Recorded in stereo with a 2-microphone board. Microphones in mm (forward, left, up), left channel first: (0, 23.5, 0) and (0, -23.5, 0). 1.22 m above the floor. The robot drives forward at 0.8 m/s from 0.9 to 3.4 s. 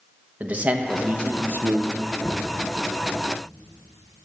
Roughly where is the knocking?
Left.